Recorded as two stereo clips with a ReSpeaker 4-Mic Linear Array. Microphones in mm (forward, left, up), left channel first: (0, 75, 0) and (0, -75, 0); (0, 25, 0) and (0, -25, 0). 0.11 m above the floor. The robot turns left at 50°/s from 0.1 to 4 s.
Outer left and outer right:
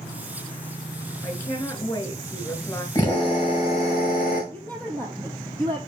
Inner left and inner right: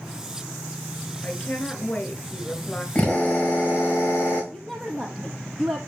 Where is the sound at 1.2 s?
20° left (ahead or behind), 1.3 m; by 2.9 s 15° left (ahead or behind), 1.3 m.